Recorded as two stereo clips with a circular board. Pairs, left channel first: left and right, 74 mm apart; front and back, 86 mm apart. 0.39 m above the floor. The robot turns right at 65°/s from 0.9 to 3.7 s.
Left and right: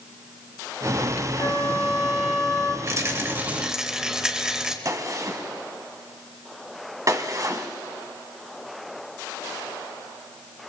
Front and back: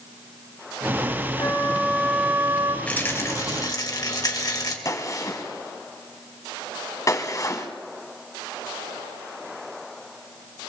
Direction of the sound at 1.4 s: 40° left.